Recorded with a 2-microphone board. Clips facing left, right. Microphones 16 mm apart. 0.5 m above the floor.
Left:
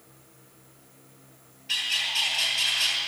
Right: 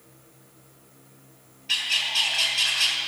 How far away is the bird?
About 3.5 m.